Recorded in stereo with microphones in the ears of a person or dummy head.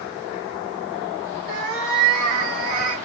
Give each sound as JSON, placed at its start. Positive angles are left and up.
{"t": 1.5, "sound": "a cat meowing", "side_deg": -35, "distance_m": 1.5}